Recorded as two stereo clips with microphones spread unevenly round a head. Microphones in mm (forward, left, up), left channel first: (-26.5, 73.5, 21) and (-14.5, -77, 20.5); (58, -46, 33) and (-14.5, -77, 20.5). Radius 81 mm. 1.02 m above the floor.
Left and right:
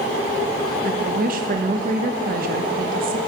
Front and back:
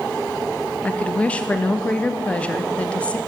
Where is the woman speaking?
55° right, 0.6 m.